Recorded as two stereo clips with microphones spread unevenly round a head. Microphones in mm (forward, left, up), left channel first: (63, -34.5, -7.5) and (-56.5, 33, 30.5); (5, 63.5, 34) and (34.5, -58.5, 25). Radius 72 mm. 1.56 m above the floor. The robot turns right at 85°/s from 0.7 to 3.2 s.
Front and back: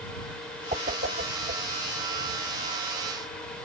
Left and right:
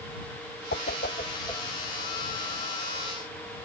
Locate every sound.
0.7 s a whoosh: 105° left; by 1.6 s straight behind